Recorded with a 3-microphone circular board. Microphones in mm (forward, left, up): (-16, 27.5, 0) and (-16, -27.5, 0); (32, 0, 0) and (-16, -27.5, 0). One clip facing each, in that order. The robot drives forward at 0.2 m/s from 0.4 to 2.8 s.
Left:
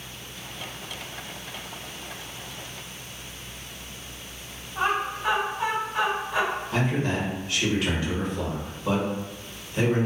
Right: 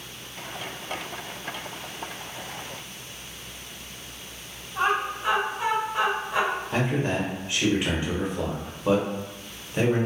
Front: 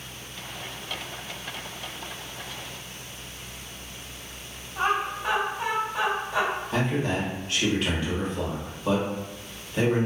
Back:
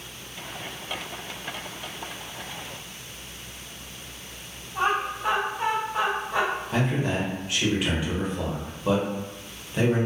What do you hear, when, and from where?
4.8 s laughter: 160° right, 1.9 m
6.7 s a man speaking: 85° right, 0.9 m